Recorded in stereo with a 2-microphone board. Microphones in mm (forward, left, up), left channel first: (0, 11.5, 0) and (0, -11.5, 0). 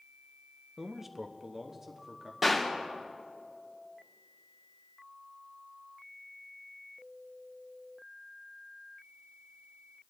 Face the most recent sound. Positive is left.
turn(degrees=-15)  # may be behind; listen again after turning